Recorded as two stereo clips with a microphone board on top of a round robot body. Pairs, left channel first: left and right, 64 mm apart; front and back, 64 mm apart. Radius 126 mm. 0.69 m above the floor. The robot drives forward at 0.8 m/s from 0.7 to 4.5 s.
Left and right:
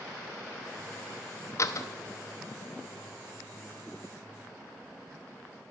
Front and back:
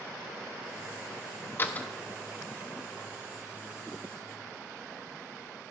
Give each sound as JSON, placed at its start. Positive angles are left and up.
{"t": 1.6, "sound": "a door slam", "azimuth_deg": 55, "distance_m": 0.9}